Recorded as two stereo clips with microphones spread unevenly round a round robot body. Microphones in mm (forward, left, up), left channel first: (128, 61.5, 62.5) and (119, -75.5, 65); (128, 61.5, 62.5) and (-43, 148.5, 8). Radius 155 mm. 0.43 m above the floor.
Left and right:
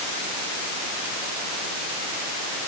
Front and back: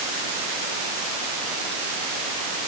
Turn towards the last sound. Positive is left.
No sound to turn to.